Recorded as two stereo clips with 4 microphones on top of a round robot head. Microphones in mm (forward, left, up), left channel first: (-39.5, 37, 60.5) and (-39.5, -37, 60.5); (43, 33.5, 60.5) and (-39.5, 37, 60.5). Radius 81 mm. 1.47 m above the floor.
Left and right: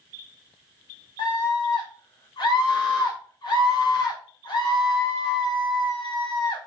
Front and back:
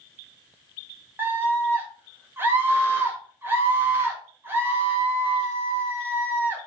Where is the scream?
115° left, 1.9 m.